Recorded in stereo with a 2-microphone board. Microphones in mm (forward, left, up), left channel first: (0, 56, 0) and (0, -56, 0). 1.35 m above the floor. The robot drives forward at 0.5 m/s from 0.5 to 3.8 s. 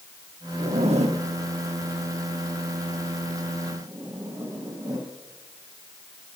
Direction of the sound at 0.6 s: 65° right (ahead or behind).